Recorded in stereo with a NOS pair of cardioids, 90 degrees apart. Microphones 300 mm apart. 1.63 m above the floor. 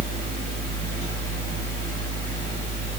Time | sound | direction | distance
0.0 | a fan | 30° right | 4.5 m